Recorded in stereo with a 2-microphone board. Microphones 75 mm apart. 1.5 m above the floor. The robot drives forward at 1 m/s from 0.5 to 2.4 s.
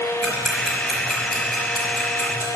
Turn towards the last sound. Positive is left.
turn(degrees=0)  # may be behind; listen again after turning